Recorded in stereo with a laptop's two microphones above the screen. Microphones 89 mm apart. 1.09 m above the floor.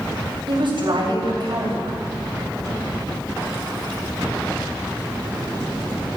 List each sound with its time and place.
0.5 s a woman speaking: 65° right (ahead or behind), 7 m